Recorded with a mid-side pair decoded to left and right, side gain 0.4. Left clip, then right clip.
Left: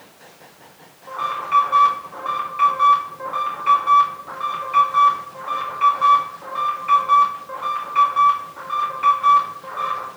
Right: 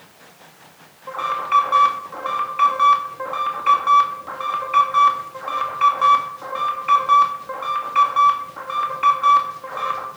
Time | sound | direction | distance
1.1 | an alarm | 40° right | 2.5 m